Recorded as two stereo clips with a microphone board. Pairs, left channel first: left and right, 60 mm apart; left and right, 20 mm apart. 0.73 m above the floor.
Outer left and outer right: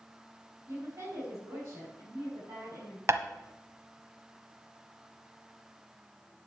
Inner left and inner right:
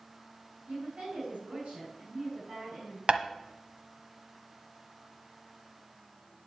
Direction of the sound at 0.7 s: 55° right (ahead or behind).